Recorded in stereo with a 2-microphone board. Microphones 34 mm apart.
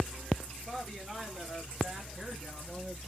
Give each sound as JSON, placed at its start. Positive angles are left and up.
{"t": 0.7, "sound": "a woman speaking", "side_deg": -5, "distance_m": 1.6}